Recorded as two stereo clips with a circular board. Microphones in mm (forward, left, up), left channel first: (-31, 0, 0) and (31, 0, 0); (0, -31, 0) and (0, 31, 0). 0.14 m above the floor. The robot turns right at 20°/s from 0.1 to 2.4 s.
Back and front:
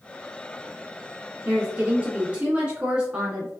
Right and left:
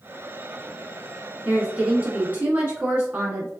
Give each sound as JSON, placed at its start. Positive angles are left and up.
{"t": 1.4, "sound": "a woman speaking", "azimuth_deg": 35, "distance_m": 1.3}